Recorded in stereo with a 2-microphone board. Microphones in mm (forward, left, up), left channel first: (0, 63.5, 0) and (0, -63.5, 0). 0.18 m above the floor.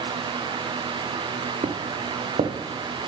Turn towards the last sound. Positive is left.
turn(degrees=-75)  # may be behind; listen again after turning